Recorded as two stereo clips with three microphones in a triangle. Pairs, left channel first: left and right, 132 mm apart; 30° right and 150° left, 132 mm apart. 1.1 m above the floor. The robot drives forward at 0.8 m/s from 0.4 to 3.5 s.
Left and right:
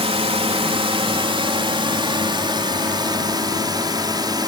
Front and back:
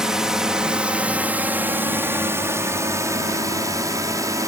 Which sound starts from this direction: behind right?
A drone, at 0.0 s.